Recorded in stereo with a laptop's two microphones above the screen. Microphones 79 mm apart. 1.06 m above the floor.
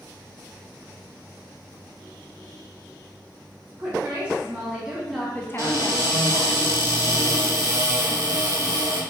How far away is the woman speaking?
About 1.7 m.